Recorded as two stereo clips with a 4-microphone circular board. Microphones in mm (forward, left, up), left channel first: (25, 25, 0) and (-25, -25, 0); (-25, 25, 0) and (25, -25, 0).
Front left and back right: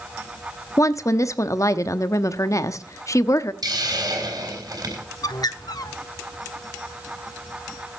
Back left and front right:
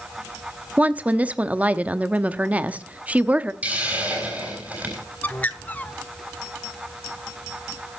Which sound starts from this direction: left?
A bird, at 5.2 s.